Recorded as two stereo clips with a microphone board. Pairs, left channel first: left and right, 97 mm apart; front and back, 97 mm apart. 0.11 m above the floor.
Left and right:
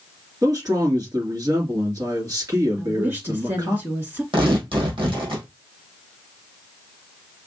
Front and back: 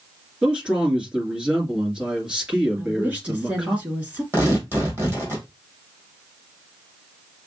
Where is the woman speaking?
130° right, 1.8 m.